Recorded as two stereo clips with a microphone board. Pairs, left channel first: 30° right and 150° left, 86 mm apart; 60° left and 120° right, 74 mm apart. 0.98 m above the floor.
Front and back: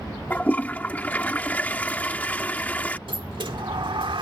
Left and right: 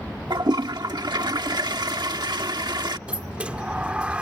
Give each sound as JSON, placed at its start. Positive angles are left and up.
{"t": 0.3, "sound": "a toilet flushing", "azimuth_deg": -100}
{"t": 3.1, "sound": "a sliding door", "azimuth_deg": 165}